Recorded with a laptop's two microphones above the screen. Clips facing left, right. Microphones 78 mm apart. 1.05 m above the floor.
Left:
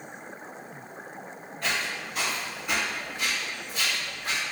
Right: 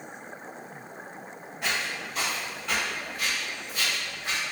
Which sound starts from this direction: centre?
Footsteps, at 1.6 s.